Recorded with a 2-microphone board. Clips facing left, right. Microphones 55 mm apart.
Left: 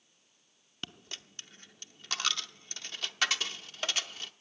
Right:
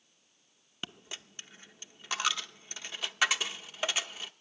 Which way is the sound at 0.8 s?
10° right (ahead or behind).